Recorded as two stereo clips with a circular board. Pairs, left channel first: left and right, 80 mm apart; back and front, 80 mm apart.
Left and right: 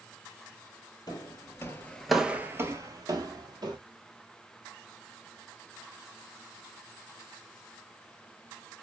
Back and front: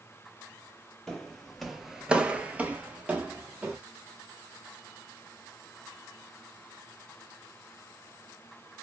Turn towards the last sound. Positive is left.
turn(degrees=-70)